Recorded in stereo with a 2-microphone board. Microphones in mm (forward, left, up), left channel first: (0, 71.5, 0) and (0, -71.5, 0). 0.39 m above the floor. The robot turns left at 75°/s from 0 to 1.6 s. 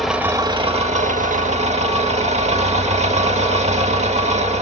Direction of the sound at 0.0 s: 5° left.